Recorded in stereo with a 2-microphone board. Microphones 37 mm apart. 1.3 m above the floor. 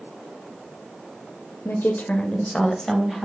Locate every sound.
1.6 s a woman speaking: 75° left (ahead or behind), 0.5 m; by 3.3 s 5° right (ahead or behind), 1.2 m